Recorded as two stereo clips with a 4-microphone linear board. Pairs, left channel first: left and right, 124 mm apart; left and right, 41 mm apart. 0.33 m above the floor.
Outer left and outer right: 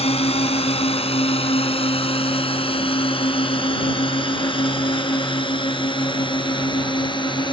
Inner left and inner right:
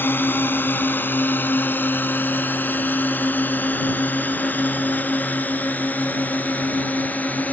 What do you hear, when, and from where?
0.0 s a drone: 55° left (ahead or behind); by 7.5 s 40° left (ahead or behind)